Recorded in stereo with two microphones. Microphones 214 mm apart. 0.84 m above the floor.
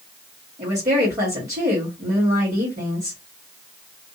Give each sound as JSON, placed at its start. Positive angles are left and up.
{"t": 0.6, "sound": "a woman speaking", "side_deg": -40, "distance_m": 1.6}